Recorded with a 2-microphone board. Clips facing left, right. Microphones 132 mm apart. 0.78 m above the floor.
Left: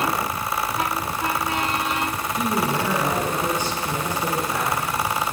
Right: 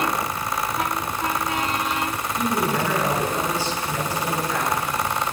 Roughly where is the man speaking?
Centre.